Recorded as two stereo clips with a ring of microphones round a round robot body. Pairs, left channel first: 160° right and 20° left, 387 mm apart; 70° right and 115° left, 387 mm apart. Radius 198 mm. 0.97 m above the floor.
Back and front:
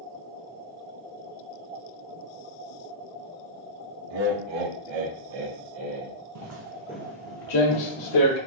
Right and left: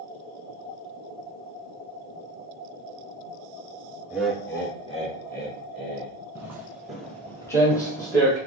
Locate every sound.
4.1 s laughter: 30° left, 1.3 m; by 6.1 s 10° right, 2 m
6.3 s footsteps: 30° left, 1.3 m; by 8.4 s 150° right, 2 m